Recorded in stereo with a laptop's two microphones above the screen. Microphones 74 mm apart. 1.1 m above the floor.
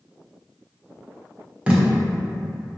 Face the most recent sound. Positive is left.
turn(degrees=-20)  # may be behind; listen again after turning